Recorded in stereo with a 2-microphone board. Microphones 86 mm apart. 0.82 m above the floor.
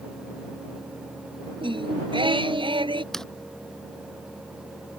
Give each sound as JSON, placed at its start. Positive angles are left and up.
{"t": 1.6, "sound": "singing", "side_deg": -85}
{"t": 3.1, "sound": "a zipper", "side_deg": 5}